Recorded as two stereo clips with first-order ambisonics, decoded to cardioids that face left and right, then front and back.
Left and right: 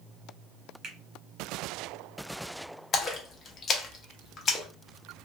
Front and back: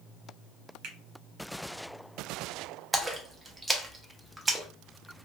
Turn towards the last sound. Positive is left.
turn(degrees=110)